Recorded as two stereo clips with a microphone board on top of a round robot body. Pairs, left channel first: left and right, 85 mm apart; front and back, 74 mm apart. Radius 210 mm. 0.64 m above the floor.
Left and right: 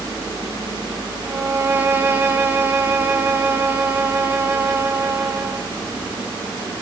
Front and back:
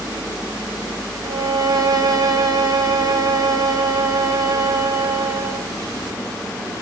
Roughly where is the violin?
Behind right.